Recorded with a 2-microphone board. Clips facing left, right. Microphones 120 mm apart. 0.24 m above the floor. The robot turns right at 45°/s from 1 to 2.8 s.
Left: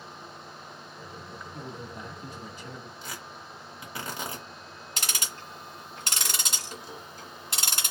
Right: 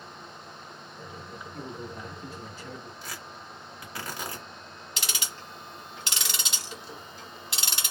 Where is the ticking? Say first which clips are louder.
Left 1 dB; 45° left (ahead or behind), 1.1 m.